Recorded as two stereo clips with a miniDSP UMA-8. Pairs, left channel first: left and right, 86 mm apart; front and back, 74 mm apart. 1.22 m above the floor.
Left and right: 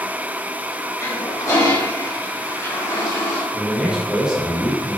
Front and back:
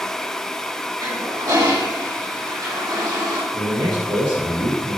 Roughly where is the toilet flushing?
Behind left.